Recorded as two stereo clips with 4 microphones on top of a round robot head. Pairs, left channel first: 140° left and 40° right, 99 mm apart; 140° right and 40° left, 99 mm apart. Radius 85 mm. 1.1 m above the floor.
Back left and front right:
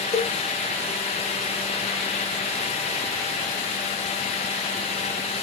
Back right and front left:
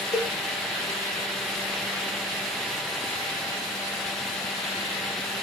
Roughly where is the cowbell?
Behind.